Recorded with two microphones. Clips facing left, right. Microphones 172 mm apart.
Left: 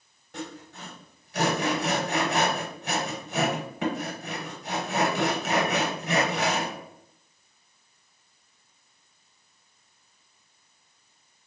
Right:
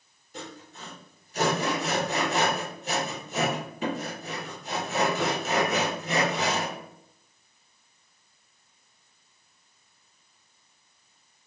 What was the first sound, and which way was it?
Sawing, 70° left (ahead or behind).